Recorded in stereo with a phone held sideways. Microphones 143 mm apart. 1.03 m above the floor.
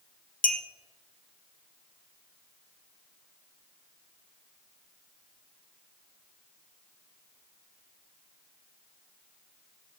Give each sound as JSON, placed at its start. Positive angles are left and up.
{"t": 0.4, "sound": "a clink", "side_deg": 75, "distance_m": 0.6}